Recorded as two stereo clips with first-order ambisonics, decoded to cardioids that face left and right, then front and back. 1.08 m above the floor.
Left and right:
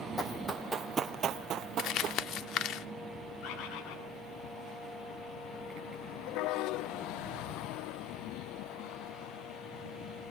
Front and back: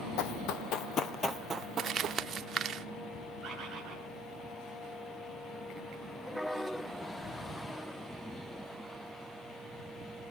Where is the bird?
100° left, 6.5 m.